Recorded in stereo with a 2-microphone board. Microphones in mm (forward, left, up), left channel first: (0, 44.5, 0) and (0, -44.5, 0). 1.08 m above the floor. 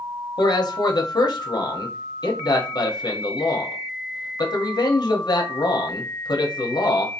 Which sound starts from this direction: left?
A man speaking, at 0.4 s.